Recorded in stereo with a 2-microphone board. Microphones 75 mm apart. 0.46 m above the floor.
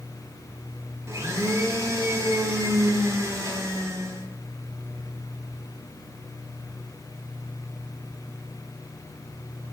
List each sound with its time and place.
1.1 s a blender: 40° right (ahead or behind), 0.6 m